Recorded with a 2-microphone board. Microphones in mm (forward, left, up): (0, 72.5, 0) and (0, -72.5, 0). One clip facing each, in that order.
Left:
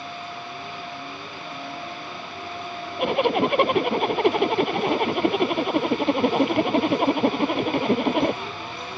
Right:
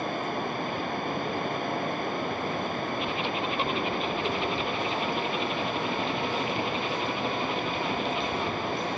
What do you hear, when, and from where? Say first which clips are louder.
0.0 s running water: right 5 dB; 55° right (ahead or behind)
3.0 s a zipper: left 9 dB; 65° left (ahead or behind)